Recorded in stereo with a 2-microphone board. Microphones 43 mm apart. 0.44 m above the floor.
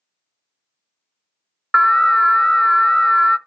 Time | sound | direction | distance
1.7 | an alarm | 10° left (ahead or behind) | 0.5 m